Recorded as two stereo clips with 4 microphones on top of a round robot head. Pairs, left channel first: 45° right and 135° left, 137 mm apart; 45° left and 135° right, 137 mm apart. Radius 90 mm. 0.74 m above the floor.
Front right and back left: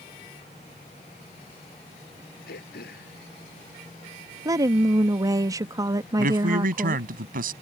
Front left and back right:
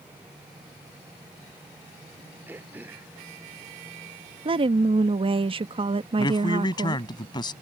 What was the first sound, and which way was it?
Throat clearing, 55° right.